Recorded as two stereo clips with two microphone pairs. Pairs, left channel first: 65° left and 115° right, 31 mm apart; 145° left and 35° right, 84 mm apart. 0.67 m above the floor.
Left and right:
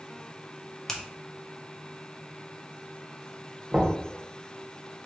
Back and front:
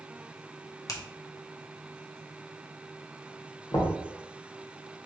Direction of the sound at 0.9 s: 135° left.